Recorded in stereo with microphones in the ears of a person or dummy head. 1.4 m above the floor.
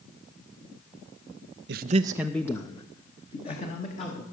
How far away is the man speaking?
About 0.6 m.